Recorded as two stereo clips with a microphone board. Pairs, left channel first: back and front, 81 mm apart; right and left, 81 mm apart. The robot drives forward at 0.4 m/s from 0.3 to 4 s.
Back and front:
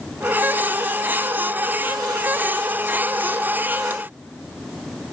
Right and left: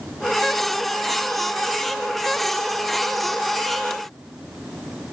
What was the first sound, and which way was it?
Only background noise.